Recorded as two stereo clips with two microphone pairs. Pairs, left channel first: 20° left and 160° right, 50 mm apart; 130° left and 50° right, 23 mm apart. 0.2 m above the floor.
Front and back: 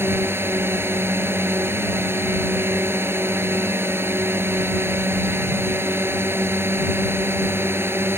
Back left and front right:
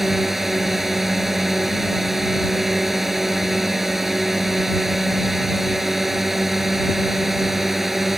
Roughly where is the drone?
Behind right.